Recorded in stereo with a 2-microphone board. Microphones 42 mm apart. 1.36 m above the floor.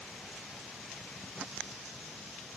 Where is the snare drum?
No snare drum in this recording.